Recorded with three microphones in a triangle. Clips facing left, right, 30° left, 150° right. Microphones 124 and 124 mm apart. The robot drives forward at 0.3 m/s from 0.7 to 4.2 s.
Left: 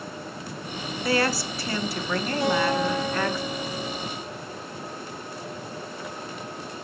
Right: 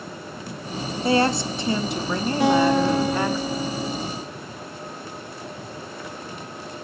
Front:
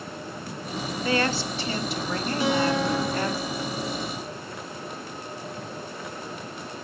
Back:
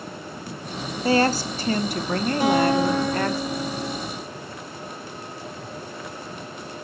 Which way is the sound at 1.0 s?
130° right.